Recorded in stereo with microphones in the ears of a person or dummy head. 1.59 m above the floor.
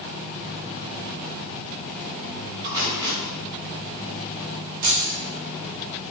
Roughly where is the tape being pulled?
Right.